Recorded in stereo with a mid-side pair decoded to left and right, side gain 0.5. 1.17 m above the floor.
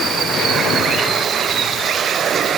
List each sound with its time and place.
Only background noise.